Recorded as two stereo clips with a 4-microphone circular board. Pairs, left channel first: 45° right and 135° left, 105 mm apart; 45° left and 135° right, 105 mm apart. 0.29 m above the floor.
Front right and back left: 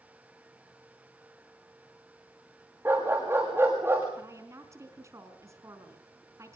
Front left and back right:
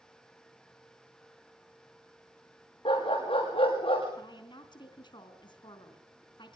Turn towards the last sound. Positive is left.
turn(degrees=80)